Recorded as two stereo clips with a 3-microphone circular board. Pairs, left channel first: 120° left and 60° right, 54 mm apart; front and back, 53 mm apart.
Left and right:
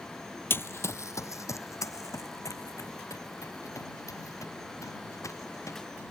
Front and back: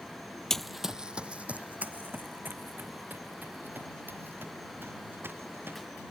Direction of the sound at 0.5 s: 80° left.